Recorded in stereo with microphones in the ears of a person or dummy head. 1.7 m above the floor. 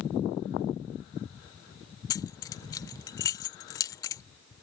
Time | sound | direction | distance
2.1 | keys jangling | 20° left (ahead or behind) | ?